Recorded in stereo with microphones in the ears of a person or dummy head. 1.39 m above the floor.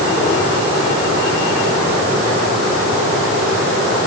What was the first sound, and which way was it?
Only background noise.